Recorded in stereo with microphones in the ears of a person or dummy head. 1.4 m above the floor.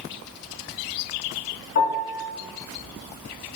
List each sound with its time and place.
1.8 s a piano: 55° left (ahead or behind), 4 m